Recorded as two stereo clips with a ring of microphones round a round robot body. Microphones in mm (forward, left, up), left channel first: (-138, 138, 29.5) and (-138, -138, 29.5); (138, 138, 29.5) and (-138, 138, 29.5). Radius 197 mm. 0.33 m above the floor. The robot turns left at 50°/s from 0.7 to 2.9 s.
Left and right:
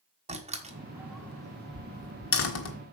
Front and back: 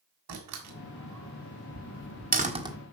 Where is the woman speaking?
No woman speaking in this recording.